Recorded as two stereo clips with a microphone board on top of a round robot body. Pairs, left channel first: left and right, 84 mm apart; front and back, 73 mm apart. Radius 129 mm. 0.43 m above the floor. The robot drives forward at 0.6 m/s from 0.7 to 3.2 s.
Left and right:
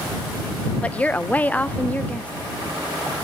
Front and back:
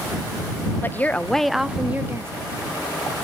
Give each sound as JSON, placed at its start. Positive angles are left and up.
{"t": 0.8, "sound": "a woman speaking", "azimuth_deg": 30, "distance_m": 0.9}